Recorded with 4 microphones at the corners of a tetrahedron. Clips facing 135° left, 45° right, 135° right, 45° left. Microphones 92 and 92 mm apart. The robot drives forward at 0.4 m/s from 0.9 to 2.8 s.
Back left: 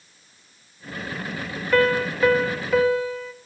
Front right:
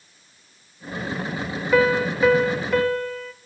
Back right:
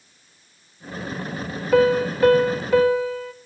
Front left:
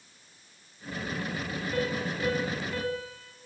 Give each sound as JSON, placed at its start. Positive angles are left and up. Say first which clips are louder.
{"t": 1.7, "sound": "a piano", "louder": "front right 1 dB, back right 15 dB", "azimuth_deg": -125, "distance_m": 1.4}